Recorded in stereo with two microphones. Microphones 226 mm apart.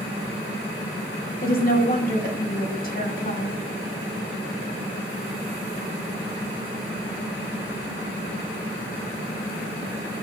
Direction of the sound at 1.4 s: 40° left (ahead or behind).